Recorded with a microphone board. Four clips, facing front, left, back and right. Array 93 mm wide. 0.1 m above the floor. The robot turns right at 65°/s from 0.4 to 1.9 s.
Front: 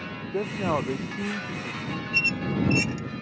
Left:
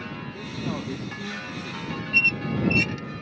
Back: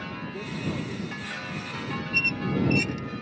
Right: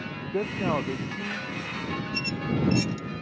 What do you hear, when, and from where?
0.3 s a man speaking: 50° right; by 1.8 s 45° left
2.1 s a squeak: 80° left